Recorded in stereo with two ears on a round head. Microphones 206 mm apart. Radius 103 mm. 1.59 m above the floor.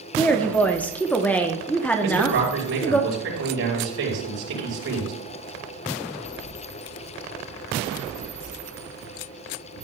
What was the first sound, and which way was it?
A woman speaking, 5° left (ahead or behind).